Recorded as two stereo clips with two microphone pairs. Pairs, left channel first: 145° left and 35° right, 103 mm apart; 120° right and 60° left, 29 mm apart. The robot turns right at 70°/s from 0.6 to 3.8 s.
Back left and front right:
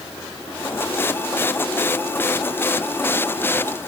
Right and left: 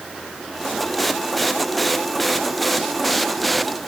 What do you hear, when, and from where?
Only background noise.